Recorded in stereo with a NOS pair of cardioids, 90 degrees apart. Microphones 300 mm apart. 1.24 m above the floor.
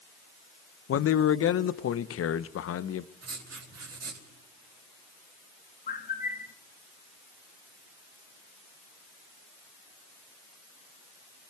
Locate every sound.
0.9 s a man speaking: 45° left, 0.8 m
3.2 s writing: 50° right, 4 m
5.9 s a bird: 30° left, 1.2 m